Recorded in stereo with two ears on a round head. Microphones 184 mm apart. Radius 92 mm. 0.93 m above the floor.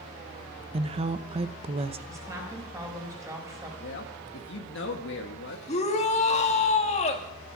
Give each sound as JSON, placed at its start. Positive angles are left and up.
{"t": 0.7, "sound": "a woman speaking", "side_deg": -30, "distance_m": 0.7}
{"t": 2.1, "sound": "a woman speaking", "side_deg": -15, "distance_m": 4.0}
{"t": 3.8, "sound": "a man speaking", "side_deg": 65, "distance_m": 1.5}
{"t": 5.7, "sound": "a shout", "side_deg": 35, "distance_m": 2.0}